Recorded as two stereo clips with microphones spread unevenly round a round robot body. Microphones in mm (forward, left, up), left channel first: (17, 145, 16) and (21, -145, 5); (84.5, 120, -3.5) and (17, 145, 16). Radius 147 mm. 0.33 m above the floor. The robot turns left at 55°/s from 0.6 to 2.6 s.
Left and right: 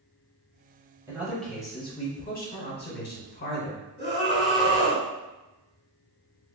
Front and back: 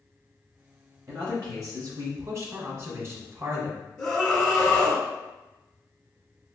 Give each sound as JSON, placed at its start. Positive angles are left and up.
{"t": 1.1, "sound": "a man speaking", "azimuth_deg": -160, "distance_m": 1.0}
{"t": 4.0, "sound": "a scream", "azimuth_deg": 30, "distance_m": 1.0}